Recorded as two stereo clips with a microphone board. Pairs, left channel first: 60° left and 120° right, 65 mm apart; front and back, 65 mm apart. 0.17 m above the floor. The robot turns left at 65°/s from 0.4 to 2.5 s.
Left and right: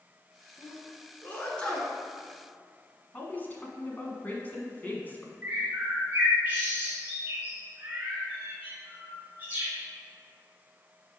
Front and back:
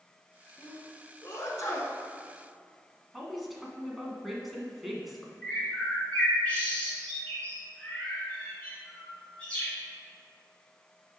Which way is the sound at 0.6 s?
60° left.